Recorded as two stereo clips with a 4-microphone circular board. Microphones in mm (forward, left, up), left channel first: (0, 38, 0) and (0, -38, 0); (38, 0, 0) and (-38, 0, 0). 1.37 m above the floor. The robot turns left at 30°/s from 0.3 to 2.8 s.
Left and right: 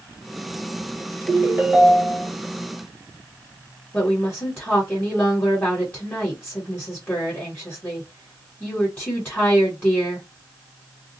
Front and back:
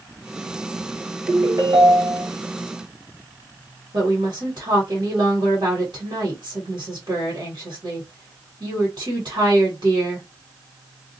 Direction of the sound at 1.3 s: 150° right.